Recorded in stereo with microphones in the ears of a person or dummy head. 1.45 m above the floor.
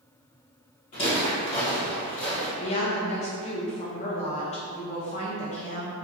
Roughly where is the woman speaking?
Left.